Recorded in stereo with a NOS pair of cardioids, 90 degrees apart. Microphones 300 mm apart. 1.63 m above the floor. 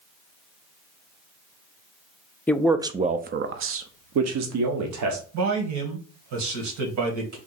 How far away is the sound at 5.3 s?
About 1.8 m.